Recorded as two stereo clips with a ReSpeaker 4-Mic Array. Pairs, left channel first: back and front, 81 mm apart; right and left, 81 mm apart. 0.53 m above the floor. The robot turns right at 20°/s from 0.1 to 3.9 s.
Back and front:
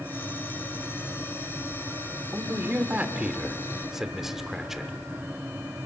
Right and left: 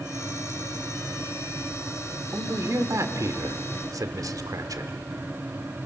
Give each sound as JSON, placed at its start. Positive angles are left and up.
{"t": 2.3, "sound": "a man speaking", "azimuth_deg": 50, "distance_m": 1.6}